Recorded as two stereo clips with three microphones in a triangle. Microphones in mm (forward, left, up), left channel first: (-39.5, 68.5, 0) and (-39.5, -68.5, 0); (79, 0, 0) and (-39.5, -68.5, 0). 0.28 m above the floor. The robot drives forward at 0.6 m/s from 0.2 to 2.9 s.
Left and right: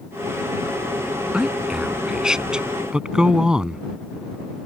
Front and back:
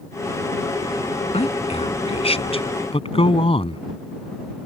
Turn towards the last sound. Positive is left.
turn(degrees=-5)